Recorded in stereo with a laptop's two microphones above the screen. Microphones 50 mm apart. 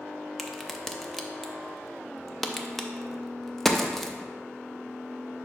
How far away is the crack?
About 0.7 m.